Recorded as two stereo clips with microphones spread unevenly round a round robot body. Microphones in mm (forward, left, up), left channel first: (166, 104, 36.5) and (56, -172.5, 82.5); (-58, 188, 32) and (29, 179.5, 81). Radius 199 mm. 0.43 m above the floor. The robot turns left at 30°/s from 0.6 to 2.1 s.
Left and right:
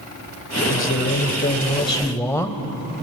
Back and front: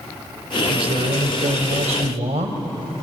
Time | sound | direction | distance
0.7 | a man speaking | 30° left | 2 m